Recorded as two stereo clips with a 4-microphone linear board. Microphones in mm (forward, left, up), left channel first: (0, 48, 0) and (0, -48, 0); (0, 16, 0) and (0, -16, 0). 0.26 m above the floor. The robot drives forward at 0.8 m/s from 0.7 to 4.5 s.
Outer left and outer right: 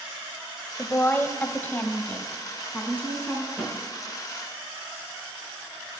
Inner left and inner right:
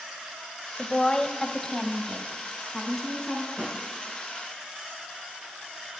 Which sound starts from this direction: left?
A woman speaking, at 0.8 s.